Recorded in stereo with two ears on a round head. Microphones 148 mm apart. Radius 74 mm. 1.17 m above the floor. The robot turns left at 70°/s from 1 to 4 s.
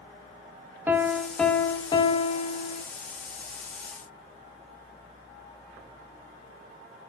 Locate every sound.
0.9 s a piano: 165° right, 0.5 m; by 2.8 s 70° left, 0.5 m